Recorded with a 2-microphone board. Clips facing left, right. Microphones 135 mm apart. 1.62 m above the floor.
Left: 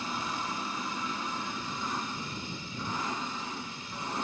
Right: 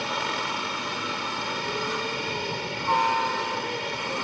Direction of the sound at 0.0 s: 75° right (ahead or behind).